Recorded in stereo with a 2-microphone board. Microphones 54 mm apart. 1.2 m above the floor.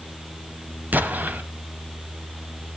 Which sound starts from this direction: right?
An explosion, at 0.9 s.